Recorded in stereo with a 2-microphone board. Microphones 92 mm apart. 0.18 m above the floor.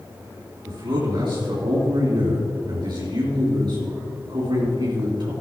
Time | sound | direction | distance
0.7 | a man speaking | 60° right (ahead or behind) | 3.5 m